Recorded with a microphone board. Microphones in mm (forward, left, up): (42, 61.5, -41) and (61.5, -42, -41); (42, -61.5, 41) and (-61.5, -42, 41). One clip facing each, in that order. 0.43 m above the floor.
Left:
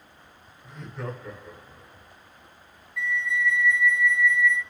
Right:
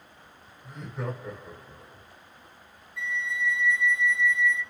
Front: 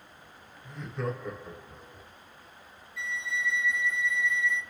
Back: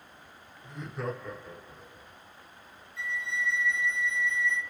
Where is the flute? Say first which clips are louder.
Left 4 dB, even; 140° right, 0.8 m.